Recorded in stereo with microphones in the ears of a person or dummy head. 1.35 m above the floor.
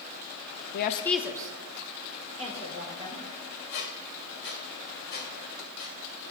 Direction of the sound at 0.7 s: 60° left (ahead or behind).